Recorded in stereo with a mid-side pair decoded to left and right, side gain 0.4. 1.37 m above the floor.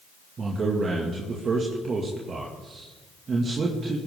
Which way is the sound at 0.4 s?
50° right.